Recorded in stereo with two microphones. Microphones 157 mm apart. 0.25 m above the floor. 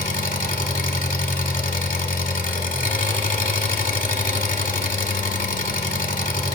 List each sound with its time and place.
0.0 s an engine running: 60° left (ahead or behind), 0.9 m